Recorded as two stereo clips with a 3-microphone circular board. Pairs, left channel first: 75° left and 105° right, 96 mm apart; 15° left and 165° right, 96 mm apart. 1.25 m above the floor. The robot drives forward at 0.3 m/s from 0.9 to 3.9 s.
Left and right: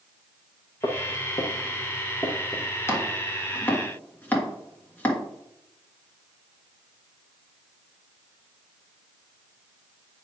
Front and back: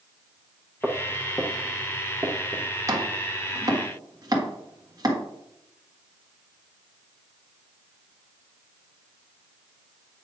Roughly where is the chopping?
Behind left.